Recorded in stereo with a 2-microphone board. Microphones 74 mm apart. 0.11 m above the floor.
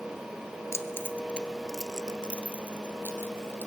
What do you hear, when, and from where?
0.7 s keys jangling: 40° left (ahead or behind), 1.3 m; by 3.7 s 35° right (ahead or behind), 2.5 m